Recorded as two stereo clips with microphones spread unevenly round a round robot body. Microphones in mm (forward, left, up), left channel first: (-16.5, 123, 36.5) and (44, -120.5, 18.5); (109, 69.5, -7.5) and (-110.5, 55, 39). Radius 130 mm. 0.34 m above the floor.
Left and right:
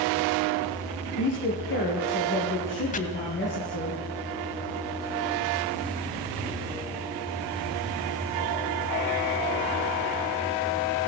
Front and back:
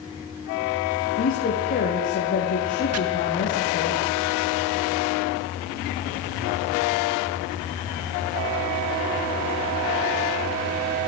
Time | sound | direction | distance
1.2 | a woman speaking | 55° left | 6.5 m
2.9 | chopping | 165° left | 1.9 m